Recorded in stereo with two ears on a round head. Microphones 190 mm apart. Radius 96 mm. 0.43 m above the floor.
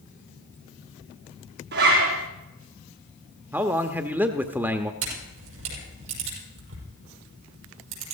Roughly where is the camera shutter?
Right.